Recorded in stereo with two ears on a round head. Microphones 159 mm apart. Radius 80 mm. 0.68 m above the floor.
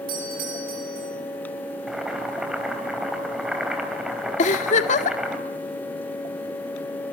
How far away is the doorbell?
About 9.5 m.